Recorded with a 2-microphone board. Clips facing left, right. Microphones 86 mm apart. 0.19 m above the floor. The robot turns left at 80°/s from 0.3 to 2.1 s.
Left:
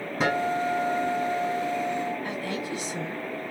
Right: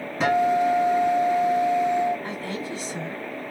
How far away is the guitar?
About 1.8 m.